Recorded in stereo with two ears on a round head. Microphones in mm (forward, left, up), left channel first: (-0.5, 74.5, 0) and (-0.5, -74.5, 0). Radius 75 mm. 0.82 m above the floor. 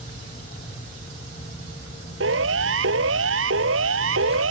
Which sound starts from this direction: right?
A siren, at 2.2 s.